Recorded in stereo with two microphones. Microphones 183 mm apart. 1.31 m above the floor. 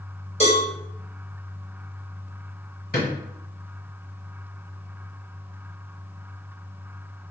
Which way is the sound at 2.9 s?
60° left (ahead or behind).